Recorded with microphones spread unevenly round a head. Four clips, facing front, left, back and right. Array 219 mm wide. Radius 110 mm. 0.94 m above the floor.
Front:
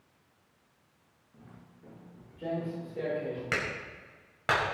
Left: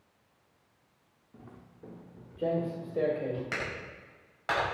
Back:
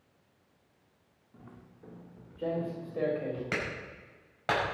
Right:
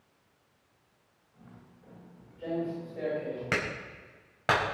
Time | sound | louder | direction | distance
1.3 | footsteps | left 3 dB, back 2 dB | 90° left | 5 m
3.5 | a clap | right 4 dB, front 1 dB | 70° right | 6 m